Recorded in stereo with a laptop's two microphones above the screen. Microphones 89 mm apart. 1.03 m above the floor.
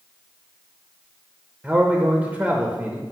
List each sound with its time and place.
1.6 s a man speaking: 15° right (ahead or behind), 0.8 m